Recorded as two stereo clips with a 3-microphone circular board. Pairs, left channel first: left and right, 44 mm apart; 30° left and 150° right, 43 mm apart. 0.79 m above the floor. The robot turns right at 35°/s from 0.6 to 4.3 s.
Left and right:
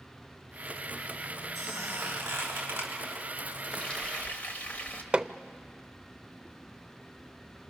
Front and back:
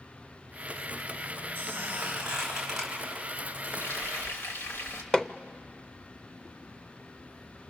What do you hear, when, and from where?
1.6 s a squeak: 110° right, 6.5 m; by 2.9 s 65° right, 6.5 m
3.6 s frying: 15° left, 2.5 m; by 5.0 s 40° left, 2.5 m
5.1 s hammering: 35° right, 0.5 m